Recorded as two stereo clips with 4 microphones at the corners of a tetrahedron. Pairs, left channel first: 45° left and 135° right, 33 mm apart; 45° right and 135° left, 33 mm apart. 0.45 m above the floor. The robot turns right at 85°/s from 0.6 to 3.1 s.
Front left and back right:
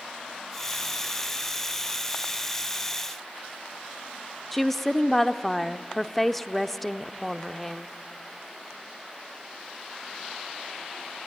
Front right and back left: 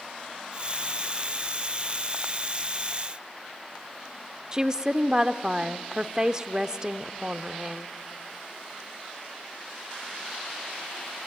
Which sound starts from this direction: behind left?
A woman speaking, at 4.5 s.